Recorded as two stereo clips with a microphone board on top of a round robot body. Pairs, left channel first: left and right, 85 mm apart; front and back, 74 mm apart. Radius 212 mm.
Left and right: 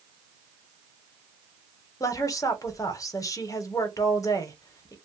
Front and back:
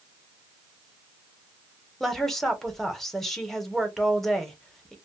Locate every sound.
2.0 s a woman speaking: 85° left, 1.1 m